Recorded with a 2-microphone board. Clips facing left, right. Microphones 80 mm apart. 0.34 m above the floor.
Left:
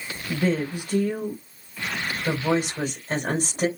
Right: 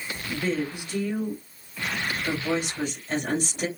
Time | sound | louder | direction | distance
0.3 | a woman speaking | left 4 dB | 40° left (ahead or behind) | 1.4 m